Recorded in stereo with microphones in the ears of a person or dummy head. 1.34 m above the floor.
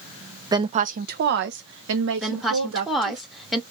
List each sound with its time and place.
0.5 s a woman speaking: 15° right (ahead or behind), 0.5 m; by 3.2 s 80° right, 1.9 m
2.2 s a woman speaking: centre (ahead or behind), 0.8 m